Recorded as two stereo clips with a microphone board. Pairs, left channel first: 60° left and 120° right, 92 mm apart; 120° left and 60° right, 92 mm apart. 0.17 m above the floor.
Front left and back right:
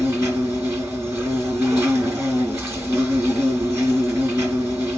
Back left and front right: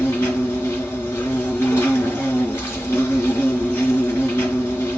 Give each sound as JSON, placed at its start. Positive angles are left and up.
{"t": 0.0, "sound": "an insect", "azimuth_deg": 180, "distance_m": 2.5}